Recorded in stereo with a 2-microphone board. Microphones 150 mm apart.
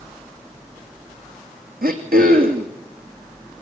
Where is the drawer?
No drawer in this recording.